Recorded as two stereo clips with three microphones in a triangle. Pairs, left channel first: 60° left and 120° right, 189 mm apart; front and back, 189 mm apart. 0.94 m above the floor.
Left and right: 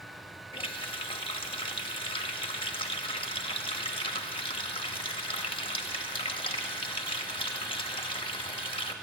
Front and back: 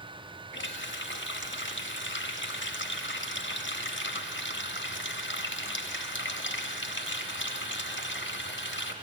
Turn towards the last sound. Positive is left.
turn(degrees=-5)